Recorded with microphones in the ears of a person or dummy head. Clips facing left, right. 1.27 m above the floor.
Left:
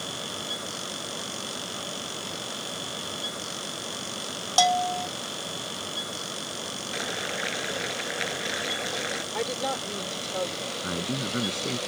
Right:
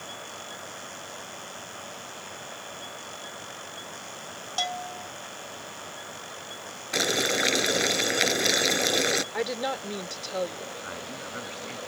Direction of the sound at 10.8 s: 55° left (ahead or behind).